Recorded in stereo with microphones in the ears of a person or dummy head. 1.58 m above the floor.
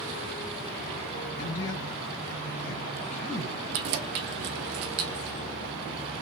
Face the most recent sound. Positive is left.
turn(degrees=-50)  # may be behind; listen again after turning